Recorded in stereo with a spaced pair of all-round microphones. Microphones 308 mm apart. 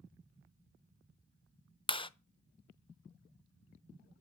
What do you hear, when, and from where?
1.9 s a clap: 15° left (ahead or behind), 0.5 m